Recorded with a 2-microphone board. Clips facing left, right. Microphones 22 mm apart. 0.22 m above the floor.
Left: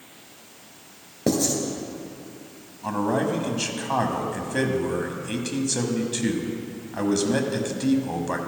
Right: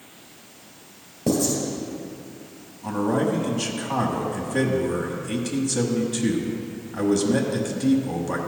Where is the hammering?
I don't hear hammering.